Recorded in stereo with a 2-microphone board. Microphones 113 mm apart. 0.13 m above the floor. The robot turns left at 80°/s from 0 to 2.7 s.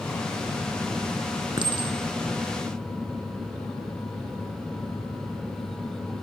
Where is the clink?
45° right (ahead or behind), 1.0 m; by 3.2 s 10° right (ahead or behind), 1.0 m.